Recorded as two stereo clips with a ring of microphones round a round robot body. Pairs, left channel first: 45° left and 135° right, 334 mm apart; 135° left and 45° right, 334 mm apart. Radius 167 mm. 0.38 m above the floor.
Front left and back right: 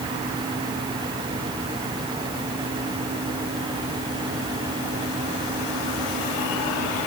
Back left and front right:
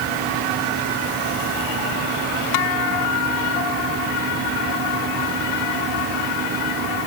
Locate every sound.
Only background noise.